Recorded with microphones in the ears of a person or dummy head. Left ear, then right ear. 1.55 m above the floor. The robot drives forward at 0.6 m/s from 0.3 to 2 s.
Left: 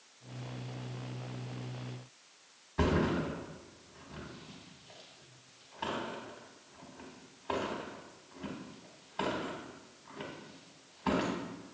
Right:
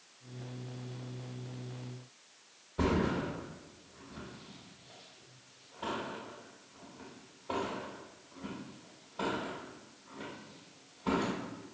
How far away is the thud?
About 0.9 m.